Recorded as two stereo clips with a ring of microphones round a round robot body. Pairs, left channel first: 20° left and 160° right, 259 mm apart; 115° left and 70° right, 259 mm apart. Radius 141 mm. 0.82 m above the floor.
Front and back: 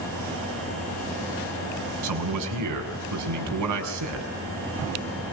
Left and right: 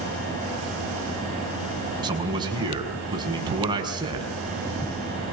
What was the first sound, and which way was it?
A man speaking, 140° right.